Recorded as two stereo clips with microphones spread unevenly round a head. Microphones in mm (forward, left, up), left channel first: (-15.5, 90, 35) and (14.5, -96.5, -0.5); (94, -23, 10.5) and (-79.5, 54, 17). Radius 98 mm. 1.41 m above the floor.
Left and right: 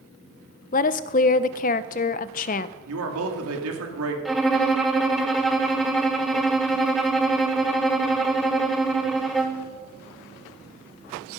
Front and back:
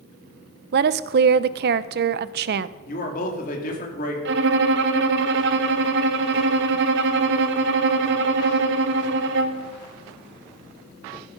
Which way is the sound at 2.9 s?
75° right.